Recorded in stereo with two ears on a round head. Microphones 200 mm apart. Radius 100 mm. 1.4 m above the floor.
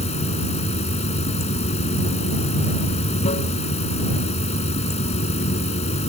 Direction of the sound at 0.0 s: 30° left (ahead or behind).